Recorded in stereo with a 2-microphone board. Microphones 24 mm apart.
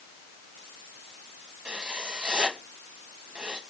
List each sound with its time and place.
1.6 s writing: 50° right (ahead or behind), 2.5 m